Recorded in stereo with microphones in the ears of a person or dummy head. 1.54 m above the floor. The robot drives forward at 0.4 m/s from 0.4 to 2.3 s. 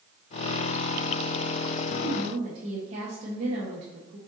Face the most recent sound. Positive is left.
turn(degrees=-45)  # may be behind; listen again after turning